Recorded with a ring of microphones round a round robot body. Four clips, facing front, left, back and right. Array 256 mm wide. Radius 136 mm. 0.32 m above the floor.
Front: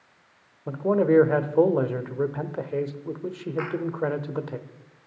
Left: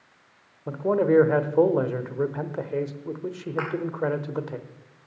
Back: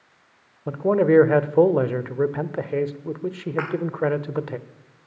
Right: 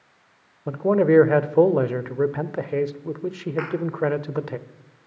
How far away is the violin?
No violin in this recording.